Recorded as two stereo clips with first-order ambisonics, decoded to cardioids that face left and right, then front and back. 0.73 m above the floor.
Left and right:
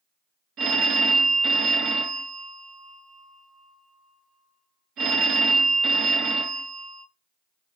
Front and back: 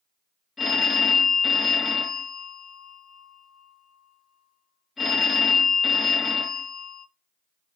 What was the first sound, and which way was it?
A phone ringing, 70° right.